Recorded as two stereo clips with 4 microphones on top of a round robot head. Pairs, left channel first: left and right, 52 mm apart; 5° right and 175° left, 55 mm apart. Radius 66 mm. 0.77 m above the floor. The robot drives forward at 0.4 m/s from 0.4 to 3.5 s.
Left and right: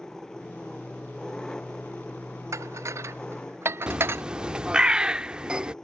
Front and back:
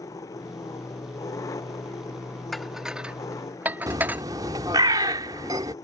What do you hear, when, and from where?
0.0 s an engine running: 10° left
2.5 s dishes clattering: 90° right; by 4.2 s 125° right
3.9 s a bird: 160° right